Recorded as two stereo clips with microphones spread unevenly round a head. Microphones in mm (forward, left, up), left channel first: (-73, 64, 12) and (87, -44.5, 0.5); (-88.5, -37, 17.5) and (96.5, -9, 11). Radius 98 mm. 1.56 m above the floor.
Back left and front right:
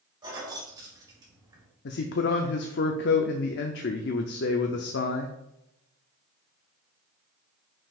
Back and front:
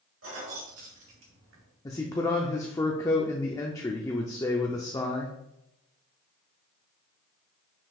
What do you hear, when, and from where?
0.2 s keys jangling: 35° left, 2.5 m; by 1.7 s 40° left, 1.8 m
1.9 s a man speaking: 115° left, 0.6 m